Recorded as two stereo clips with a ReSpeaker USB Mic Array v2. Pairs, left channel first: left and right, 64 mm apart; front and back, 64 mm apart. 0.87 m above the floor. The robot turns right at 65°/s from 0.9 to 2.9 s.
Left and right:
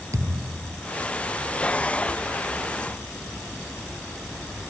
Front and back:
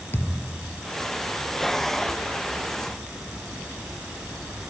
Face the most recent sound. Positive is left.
turn(degrees=80)